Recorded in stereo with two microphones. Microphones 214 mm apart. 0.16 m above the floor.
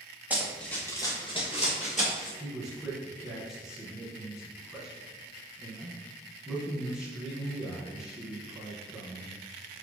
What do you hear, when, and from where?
0.3 s running footsteps: 10° right (ahead or behind), 1.9 m; by 2.3 s 40° left (ahead or behind), 4 m
2.4 s a man speaking: centre (ahead or behind), 1.9 m